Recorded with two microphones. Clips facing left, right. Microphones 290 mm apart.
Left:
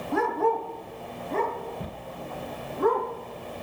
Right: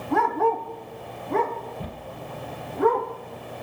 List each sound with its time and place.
0.1 s a dog barking: 70° right (ahead or behind), 2.5 m; by 3.1 s 75° right (ahead or behind), 4 m